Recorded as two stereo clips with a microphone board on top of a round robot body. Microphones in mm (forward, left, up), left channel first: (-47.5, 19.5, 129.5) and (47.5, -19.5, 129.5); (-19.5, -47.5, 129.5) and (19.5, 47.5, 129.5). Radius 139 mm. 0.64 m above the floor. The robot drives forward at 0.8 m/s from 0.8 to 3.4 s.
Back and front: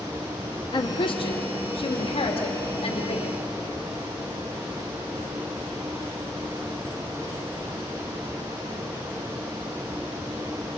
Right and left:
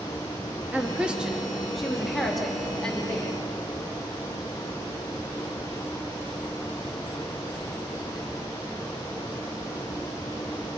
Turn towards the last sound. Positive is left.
turn(degrees=165)